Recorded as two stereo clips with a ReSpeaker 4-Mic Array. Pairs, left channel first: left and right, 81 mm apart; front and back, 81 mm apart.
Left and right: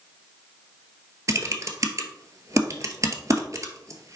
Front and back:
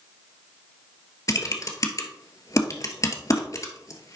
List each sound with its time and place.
1.3 s typing on a keyboard: 45° right, 1.1 m